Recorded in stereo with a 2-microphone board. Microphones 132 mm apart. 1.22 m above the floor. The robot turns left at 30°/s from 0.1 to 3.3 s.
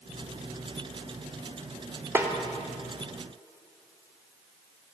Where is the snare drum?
15° right (ahead or behind), 0.6 m.